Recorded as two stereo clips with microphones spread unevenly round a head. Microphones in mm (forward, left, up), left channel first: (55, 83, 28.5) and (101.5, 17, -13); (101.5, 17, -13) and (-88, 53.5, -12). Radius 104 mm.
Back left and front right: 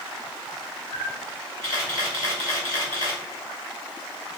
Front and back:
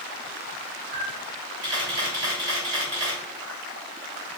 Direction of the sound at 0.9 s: 175° left.